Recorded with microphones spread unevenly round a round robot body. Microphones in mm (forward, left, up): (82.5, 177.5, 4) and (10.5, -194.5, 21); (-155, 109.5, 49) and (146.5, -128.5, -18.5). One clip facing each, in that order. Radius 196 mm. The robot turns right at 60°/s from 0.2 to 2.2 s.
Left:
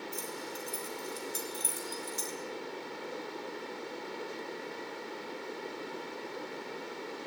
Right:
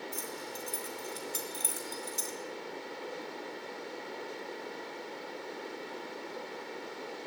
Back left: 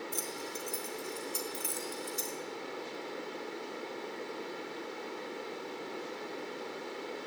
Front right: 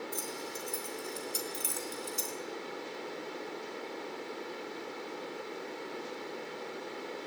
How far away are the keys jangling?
About 3.5 m.